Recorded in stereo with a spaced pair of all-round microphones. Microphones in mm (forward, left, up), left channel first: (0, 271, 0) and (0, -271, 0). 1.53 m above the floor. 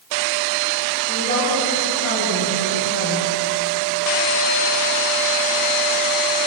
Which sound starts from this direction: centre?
A woman speaking, at 1.1 s.